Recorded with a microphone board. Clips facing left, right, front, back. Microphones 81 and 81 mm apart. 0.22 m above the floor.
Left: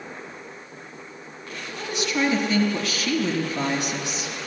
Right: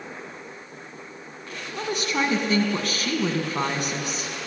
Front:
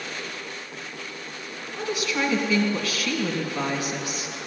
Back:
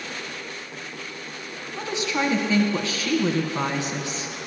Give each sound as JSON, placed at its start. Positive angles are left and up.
{"t": 1.8, "sound": "a woman speaking", "azimuth_deg": -120, "distance_m": 2.5}